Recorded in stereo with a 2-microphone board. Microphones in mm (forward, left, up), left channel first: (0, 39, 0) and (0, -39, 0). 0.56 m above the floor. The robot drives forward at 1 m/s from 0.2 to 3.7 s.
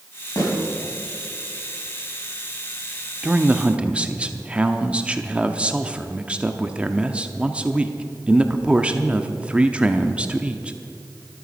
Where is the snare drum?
55° left (ahead or behind), 5 m.